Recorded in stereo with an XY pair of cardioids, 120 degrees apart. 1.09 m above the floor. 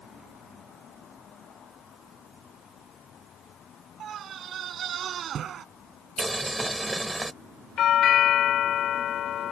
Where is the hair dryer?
No hair dryer in this recording.